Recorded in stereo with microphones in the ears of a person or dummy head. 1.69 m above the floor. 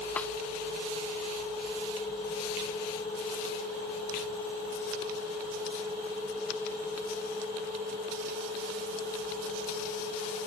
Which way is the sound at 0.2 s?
10° left (ahead or behind).